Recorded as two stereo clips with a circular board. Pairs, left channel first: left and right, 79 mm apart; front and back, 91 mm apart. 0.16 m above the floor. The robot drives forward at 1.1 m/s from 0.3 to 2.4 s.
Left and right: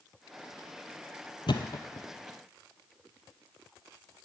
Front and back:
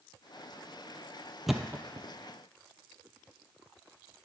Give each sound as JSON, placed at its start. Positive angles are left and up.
{"t": 1.5, "sound": "a thud", "azimuth_deg": 90, "distance_m": 0.7}